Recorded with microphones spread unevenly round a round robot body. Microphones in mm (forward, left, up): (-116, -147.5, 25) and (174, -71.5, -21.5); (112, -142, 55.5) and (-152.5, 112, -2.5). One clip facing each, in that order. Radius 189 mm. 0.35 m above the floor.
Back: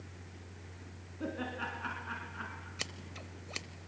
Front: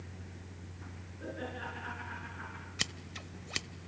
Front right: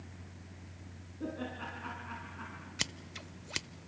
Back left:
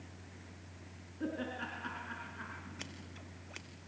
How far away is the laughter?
About 5 m.